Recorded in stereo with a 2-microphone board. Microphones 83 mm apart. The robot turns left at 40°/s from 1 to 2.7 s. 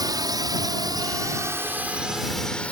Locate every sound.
0.0 s a drone: 50° right (ahead or behind); by 2.7 s 15° left (ahead or behind)